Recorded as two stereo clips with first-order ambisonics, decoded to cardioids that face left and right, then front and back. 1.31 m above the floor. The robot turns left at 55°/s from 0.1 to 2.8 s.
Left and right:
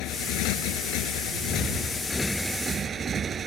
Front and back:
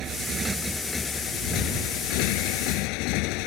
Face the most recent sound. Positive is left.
turn(degrees=-20)